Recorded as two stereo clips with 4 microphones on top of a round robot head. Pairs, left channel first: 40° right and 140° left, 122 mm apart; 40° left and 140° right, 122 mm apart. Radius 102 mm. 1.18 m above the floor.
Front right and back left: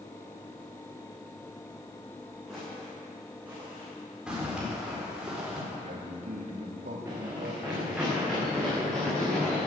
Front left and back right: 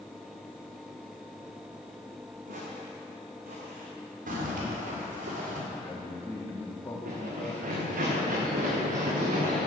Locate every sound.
2.5 s footsteps: 130° right, 5.5 m; by 3.9 s 150° right, 5 m
4.3 s a zipper: 140° right, 4 m
5.7 s a man speaking: 115° left, 3 m
7.0 s running footsteps: 145° right, 6 m; by 9.7 s 125° right, 8.5 m